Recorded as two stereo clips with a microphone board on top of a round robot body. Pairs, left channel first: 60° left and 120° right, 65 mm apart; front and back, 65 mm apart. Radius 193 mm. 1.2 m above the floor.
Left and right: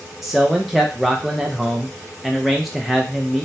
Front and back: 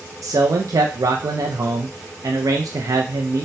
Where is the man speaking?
150° left, 0.5 m.